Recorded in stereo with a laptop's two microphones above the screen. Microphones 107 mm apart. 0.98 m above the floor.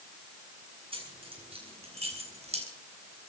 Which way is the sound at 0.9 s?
55° right (ahead or behind).